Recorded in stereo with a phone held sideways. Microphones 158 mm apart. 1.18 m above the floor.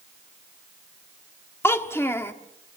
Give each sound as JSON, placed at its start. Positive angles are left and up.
{"t": 1.6, "sound": "a child speaking", "side_deg": 15, "distance_m": 1.2}